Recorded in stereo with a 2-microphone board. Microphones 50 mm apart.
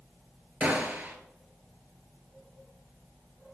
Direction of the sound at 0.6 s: 30° right (ahead or behind).